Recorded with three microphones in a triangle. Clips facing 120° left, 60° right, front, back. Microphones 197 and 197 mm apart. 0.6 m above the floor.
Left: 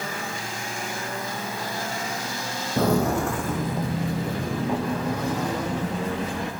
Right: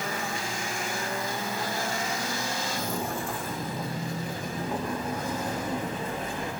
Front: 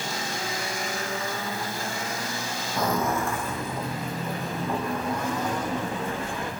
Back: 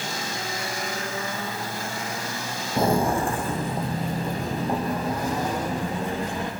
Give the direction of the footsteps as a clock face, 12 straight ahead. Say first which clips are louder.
Left 15 dB, back 4 dB; 8 o'clock.